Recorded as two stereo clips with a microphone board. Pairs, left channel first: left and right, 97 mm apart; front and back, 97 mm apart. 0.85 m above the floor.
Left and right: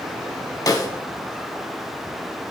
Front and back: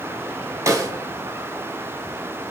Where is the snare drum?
130° left, 1.1 m.